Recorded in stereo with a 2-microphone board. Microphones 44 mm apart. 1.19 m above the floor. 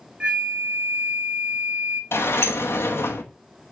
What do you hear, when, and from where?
0.2 s a flute: 25° right (ahead or behind), 0.8 m
2.1 s a sliding door: 75° left (ahead or behind), 1.1 m